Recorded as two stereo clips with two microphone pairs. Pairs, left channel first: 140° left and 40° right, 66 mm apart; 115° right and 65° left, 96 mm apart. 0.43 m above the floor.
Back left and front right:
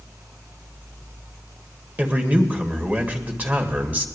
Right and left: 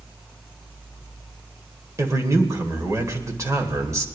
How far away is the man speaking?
About 1.6 m.